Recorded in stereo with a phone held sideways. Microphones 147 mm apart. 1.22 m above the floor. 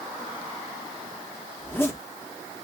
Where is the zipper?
15° left (ahead or behind), 0.9 m.